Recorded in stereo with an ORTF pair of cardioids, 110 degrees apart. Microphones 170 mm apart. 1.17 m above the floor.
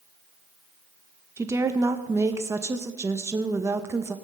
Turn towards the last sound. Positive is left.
turn(degrees=-15)